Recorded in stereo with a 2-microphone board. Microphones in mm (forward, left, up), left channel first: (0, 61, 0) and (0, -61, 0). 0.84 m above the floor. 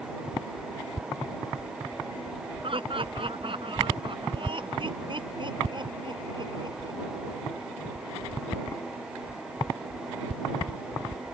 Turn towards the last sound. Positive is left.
turn(degrees=-40)  # may be behind; listen again after turning